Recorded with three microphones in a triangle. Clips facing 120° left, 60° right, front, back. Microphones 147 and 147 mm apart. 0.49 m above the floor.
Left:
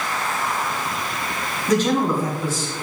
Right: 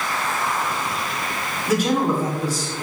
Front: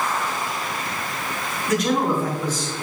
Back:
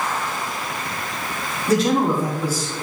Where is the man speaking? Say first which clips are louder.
Left 1 dB, back 3 dB; 145° right, 1.6 m; by 2.7 s 95° right, 1.9 m.